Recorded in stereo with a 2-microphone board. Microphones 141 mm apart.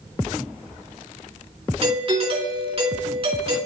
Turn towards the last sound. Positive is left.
turn(degrees=-40)  # may be behind; listen again after turning